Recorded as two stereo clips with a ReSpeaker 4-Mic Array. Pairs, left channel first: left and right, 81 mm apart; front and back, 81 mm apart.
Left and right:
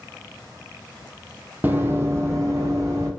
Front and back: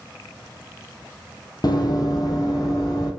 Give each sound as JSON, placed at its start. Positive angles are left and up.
{"t": 1.6, "sound": "running footsteps", "azimuth_deg": -25, "distance_m": 0.6}